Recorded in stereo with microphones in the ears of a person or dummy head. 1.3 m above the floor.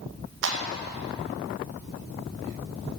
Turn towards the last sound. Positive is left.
turn(degrees=-65)  # may be behind; listen again after turning